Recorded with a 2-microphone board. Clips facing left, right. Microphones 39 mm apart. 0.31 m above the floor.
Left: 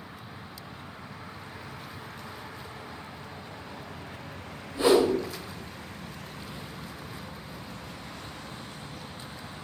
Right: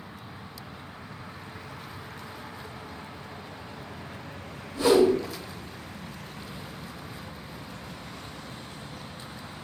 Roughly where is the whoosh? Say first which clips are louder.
Right 2 dB; left.